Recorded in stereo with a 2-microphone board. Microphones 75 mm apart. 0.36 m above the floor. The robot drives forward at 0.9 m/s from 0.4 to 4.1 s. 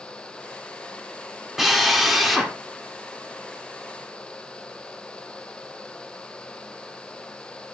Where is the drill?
5° right (ahead or behind), 1.6 m.